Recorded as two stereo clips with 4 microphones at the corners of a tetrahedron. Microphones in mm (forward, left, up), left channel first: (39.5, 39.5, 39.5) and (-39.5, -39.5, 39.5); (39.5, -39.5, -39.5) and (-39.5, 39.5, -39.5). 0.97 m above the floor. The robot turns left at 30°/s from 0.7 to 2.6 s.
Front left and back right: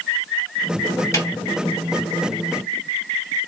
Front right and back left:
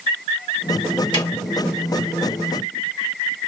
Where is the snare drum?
10° right, 1.6 m; by 1.3 s 15° right, 1.6 m.